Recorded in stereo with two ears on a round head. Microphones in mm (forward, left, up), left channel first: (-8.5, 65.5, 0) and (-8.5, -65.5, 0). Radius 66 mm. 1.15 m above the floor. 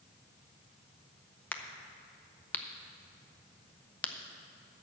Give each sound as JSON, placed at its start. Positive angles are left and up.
{"t": 1.5, "sound": "a crack", "side_deg": 10, "distance_m": 0.6}